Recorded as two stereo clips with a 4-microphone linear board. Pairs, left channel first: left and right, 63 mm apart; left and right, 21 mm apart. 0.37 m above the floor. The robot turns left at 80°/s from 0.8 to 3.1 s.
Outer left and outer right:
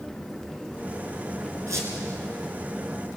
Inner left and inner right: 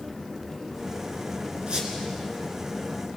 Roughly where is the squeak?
Right.